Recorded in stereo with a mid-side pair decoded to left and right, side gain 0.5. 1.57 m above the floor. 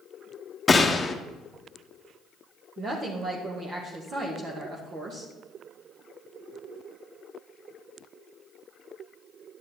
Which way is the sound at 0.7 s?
25° left.